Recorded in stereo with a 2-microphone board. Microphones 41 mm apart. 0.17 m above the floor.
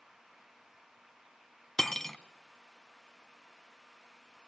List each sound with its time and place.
1.8 s cutlery clinking: 10° left (ahead or behind), 0.8 m